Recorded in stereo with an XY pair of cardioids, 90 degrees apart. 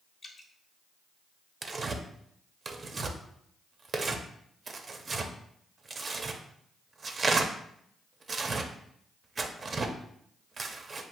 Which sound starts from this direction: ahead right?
Tearing paper, at 1.6 s.